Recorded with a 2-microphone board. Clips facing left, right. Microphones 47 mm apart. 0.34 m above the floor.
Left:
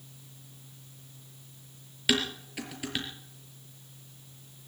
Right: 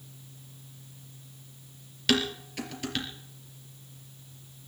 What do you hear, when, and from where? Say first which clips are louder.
2.1 s dishes clattering: right 2 dB; 10° left (ahead or behind), 4 m